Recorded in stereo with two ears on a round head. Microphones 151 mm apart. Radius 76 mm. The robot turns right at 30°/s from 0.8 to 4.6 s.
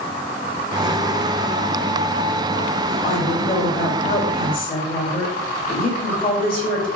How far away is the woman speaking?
About 1.8 m.